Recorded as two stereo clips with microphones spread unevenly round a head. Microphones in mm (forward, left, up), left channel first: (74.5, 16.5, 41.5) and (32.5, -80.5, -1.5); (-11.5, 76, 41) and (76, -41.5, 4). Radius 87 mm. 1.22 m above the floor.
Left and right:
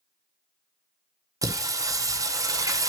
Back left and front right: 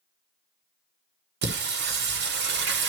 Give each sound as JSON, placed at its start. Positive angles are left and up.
{"t": 1.4, "sound": "singing", "azimuth_deg": -45, "distance_m": 1.3}